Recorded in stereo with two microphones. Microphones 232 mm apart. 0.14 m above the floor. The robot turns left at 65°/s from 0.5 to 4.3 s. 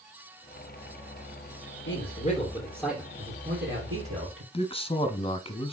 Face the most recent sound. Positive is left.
turn(degrees=25)  # may be behind; listen again after turning